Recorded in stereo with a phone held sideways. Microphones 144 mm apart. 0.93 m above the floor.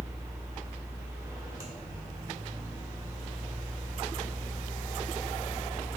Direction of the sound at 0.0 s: 20° right (ahead or behind).